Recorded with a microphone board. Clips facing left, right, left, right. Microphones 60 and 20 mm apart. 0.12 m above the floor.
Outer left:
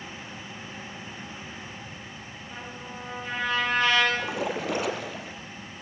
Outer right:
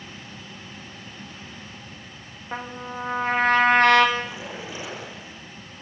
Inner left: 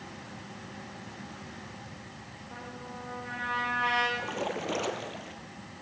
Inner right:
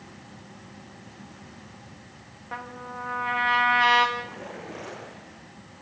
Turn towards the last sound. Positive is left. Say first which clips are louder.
# outer left 3 dB, inner left 3 dB
turn(degrees=60)  # may be behind; listen again after turning